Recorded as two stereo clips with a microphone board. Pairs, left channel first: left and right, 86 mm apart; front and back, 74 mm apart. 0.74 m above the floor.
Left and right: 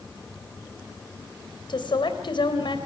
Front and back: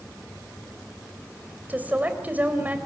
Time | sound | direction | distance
1.7 | a woman speaking | 110° left | 3.5 m